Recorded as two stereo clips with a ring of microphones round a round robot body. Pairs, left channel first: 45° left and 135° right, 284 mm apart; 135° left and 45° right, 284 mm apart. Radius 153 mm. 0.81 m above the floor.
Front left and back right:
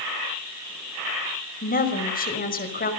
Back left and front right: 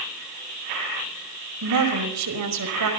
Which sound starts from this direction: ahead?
A woman speaking, at 1.6 s.